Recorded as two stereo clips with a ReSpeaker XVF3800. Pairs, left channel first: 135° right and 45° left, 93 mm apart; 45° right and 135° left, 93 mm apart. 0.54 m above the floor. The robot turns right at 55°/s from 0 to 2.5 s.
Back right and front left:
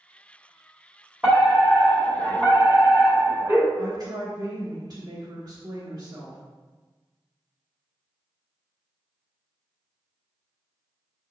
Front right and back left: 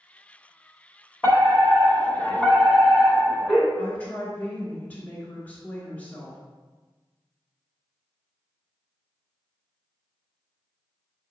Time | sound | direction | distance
1.2 | a fire alarm | 25° right | 1.8 m
3.8 | a woman speaking | 25° left | 1.8 m